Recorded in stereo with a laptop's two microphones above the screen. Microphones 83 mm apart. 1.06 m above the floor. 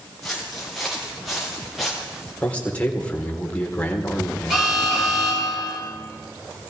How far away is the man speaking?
About 4 m.